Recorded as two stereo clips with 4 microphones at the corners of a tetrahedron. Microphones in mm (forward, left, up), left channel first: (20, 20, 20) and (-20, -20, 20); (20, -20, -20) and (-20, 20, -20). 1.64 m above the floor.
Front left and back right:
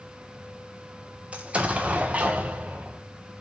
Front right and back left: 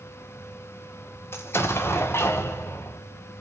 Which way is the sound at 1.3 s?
75° right.